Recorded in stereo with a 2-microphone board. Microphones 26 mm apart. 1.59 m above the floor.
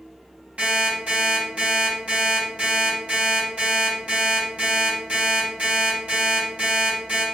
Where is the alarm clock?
55° right (ahead or behind), 1.8 m.